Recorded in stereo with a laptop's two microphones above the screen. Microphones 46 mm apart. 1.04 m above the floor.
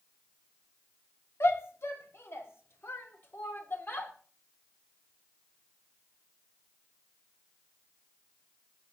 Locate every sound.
1.4 s a shout: 80° left, 2 m; by 4.1 s 50° left (ahead or behind), 2.5 m